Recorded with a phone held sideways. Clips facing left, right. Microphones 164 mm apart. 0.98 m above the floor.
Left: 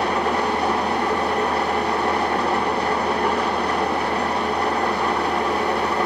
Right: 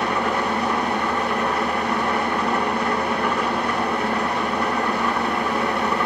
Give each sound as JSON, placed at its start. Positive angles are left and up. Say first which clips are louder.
{"t": 0.0, "sound": "an engine running", "louder": "left 1 dB", "side_deg": 35, "distance_m": 1.5}